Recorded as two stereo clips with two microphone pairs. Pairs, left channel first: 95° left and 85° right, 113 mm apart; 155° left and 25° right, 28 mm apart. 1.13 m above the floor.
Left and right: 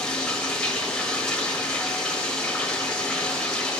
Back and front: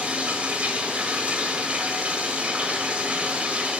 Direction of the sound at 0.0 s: 10° left.